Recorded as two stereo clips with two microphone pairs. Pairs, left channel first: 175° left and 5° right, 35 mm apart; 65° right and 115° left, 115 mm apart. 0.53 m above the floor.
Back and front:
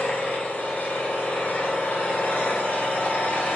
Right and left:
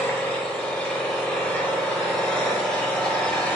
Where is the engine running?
145° right, 1.2 m.